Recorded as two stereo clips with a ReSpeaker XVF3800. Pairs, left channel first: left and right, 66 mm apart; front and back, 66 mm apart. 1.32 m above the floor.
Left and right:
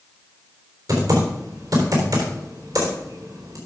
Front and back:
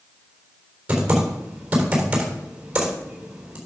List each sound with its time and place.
0.9 s typing on a keyboard: 110° right, 3.5 m